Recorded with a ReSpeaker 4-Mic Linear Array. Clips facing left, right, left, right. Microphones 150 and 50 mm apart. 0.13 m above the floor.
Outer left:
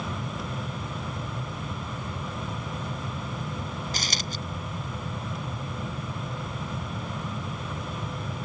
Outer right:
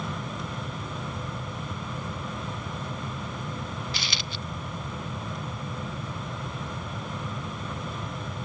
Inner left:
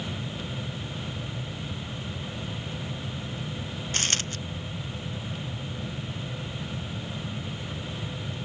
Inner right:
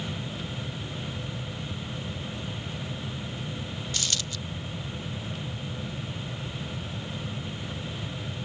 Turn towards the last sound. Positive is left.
turn(degrees=40)  # may be behind; listen again after turning